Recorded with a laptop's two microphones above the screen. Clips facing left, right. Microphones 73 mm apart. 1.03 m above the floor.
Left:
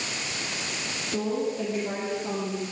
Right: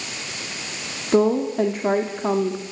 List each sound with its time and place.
1.1 s a woman speaking: 65° right (ahead or behind), 2.5 m